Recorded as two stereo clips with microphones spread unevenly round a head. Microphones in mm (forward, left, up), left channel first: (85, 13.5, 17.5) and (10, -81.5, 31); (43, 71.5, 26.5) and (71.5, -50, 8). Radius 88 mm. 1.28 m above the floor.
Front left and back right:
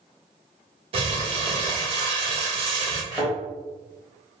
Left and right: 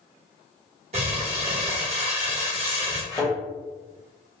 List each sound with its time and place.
0.9 s crumpling: 125° right, 0.7 m
3.1 s a thud: 145° left, 0.9 m